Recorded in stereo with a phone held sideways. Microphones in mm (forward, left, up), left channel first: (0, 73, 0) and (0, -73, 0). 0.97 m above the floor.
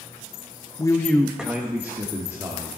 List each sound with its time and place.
0.8 s a man speaking: 25° left (ahead or behind), 0.6 m; by 2.8 s 25° right (ahead or behind), 2 m